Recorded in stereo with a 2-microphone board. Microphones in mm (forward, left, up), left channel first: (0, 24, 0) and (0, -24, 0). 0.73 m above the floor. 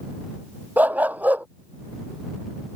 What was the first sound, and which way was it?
A dog barking, 40° right (ahead or behind).